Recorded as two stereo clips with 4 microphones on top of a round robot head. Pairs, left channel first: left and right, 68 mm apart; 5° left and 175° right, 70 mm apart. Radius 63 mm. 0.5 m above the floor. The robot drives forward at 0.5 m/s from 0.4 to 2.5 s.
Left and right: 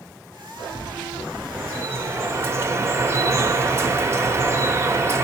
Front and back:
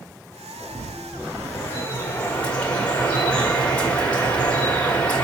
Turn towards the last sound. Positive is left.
turn(degrees=-65)